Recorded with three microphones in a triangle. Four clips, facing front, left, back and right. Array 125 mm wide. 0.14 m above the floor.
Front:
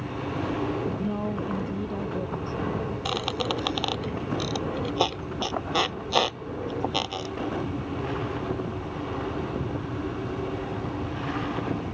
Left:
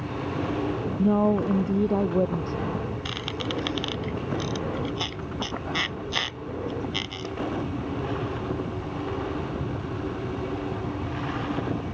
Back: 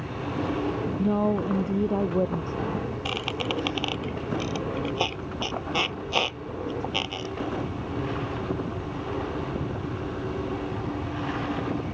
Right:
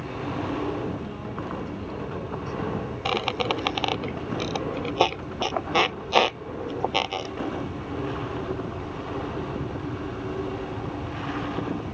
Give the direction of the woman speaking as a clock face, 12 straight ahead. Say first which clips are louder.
Left 12 dB, back 5 dB; 8 o'clock.